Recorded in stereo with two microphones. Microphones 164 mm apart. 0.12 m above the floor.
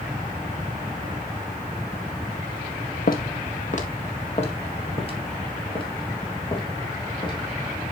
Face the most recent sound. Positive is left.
turn(degrees=30)  # may be behind; listen again after turning